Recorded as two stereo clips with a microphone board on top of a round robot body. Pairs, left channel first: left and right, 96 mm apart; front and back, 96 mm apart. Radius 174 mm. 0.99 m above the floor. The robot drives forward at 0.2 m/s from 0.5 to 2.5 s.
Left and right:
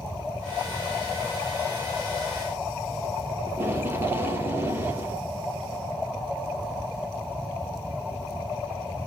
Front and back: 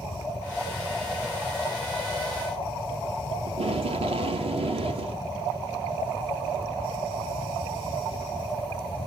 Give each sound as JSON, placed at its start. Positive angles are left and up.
{"t": 3.5, "sound": "tape being pulled", "azimuth_deg": -155, "distance_m": 1.0}